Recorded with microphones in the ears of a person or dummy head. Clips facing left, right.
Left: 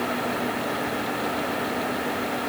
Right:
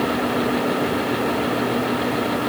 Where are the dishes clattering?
No dishes clattering in this recording.